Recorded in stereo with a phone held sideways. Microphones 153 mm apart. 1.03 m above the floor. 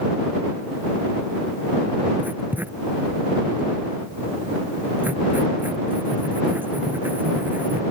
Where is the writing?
15° right (ahead or behind).